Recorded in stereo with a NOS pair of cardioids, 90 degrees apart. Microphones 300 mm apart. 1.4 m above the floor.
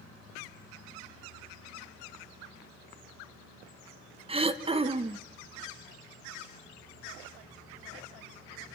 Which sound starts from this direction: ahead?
Throat clearing, at 4.3 s.